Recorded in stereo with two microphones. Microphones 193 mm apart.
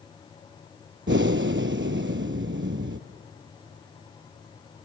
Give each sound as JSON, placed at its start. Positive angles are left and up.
{"t": 1.1, "sound": "breathing", "side_deg": -70, "distance_m": 0.7}